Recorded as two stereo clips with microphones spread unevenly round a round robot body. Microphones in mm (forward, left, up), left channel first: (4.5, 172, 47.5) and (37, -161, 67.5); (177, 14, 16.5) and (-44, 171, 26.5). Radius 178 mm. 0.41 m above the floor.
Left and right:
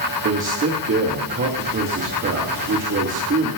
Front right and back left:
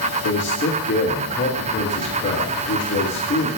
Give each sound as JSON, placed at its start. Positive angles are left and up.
{"t": 0.2, "sound": "a man speaking", "azimuth_deg": -50, "distance_m": 1.8}